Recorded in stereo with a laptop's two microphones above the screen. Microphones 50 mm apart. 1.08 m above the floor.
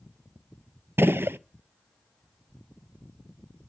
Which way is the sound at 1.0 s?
45° right (ahead or behind).